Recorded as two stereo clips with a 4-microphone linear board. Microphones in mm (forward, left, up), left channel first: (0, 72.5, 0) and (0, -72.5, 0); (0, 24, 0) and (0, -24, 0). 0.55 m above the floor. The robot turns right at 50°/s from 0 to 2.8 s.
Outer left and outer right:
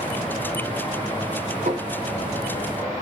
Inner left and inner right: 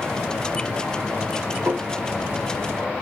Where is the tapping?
55° right (ahead or behind), 2.5 m; by 1.9 s 45° right (ahead or behind), 2.5 m.